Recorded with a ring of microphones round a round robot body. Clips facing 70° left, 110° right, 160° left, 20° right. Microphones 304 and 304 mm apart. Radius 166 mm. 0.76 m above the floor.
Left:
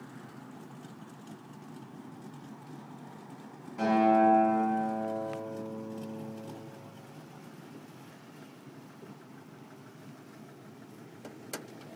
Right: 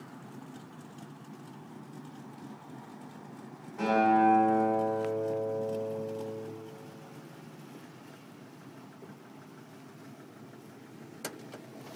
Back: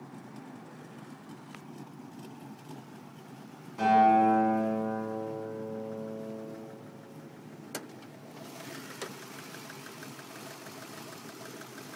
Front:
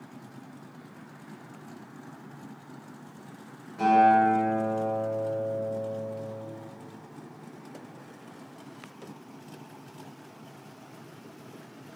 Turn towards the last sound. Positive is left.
turn(degrees=125)